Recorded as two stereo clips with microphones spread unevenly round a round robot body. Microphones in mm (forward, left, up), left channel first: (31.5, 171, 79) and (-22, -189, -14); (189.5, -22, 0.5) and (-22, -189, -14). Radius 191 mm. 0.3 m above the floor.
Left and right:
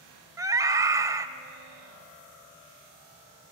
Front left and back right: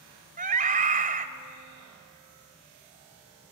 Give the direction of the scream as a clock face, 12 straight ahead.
5 o'clock.